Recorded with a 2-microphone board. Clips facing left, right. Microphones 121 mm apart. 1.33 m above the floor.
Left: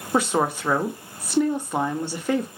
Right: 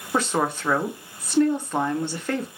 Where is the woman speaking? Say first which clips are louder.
Left 2 dB; 10° left (ahead or behind), 0.6 m.